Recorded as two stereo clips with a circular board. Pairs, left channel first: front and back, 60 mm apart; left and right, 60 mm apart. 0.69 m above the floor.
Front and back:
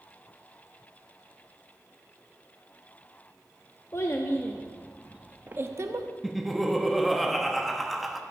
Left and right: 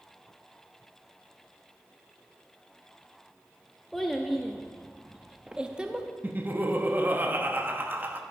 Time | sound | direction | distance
3.9 | a child speaking | 5° left | 0.8 m
6.2 | laughter | 90° right | 0.9 m